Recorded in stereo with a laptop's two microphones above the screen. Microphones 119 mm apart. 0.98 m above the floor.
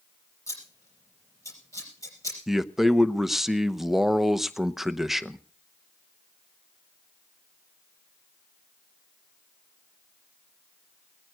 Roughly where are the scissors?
Left.